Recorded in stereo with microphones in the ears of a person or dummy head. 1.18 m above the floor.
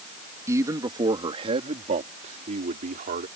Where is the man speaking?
10° right (ahead or behind); by 3.3 s 40° right (ahead or behind).